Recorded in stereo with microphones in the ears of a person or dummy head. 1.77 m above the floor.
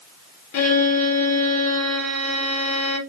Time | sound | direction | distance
0.5 | a violin | 75° left (ahead or behind) | 1.6 m